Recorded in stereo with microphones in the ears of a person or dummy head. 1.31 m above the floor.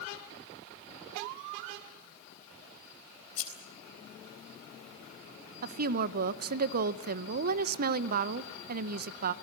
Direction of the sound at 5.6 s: 45° right (ahead or behind).